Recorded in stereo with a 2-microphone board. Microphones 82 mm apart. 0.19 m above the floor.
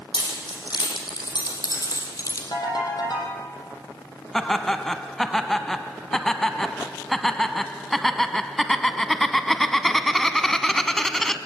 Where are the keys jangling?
65° left (ahead or behind), 6.5 m; by 2.4 s 40° left (ahead or behind), 4 m.